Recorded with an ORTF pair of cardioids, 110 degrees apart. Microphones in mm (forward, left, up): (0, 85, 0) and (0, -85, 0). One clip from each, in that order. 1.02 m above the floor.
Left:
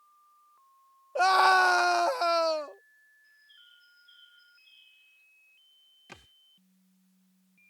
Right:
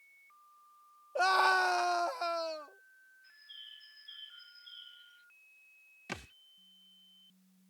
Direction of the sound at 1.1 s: 25° left.